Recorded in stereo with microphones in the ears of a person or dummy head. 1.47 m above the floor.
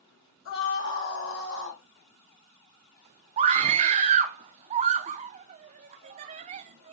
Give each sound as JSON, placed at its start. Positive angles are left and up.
{"t": 0.5, "sound": "a scream", "side_deg": 80, "distance_m": 3.5}
{"t": 3.4, "sound": "a scream", "side_deg": -40, "distance_m": 0.5}